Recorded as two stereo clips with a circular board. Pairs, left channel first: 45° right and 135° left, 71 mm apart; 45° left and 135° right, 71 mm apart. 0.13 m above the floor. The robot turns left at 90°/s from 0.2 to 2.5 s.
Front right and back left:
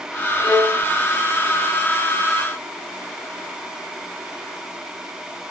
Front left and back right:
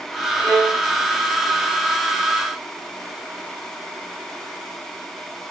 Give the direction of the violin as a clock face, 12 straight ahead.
3 o'clock.